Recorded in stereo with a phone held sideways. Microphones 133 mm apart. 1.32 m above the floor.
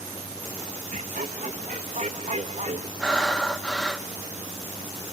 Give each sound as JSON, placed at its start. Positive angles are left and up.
{"t": 0.9, "sound": "laughter", "side_deg": -70, "distance_m": 1.4}
{"t": 3.0, "sound": "breathing", "side_deg": 5, "distance_m": 0.7}